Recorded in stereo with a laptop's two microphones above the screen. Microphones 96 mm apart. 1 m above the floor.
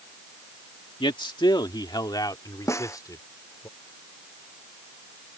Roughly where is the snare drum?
Left.